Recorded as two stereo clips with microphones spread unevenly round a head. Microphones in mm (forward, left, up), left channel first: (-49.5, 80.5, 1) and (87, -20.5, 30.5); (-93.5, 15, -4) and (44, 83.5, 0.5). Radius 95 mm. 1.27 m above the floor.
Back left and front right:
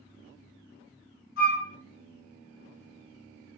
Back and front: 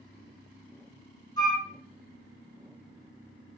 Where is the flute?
145° left, 1.6 m.